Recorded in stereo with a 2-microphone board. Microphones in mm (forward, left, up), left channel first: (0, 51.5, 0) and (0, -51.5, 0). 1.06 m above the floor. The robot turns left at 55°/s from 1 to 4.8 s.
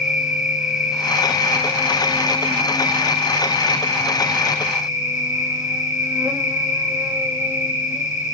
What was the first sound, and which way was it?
An insect, 170° right.